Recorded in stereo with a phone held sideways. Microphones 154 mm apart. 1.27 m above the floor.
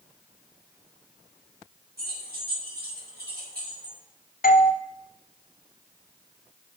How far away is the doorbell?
About 0.7 m.